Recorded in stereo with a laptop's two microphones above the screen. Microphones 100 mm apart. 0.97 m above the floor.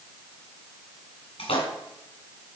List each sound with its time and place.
1.4 s a splash: 75° left (ahead or behind), 3 m